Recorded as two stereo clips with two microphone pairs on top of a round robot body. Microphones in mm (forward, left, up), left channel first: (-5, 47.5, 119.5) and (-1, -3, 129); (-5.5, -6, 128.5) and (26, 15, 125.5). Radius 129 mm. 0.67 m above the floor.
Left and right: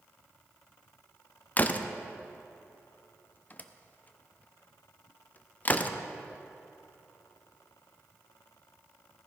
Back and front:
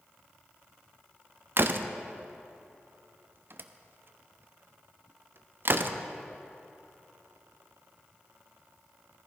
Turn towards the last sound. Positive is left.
turn(degrees=50)